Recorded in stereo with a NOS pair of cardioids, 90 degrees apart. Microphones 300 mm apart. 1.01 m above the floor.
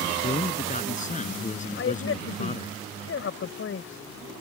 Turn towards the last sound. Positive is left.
turn(degrees=45)